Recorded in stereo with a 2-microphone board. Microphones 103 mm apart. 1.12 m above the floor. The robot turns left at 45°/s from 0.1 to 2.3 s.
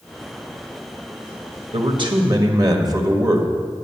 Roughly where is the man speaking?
Right.